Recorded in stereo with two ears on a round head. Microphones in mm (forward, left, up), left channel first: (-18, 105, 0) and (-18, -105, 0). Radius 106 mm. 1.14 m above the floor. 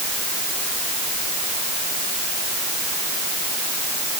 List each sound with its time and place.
Only background noise.